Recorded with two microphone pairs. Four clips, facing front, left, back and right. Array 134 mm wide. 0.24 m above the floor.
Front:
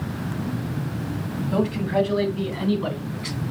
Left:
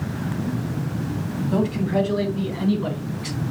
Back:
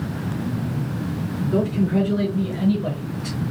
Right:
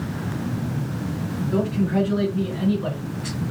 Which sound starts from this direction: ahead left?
A man speaking, at 1.5 s.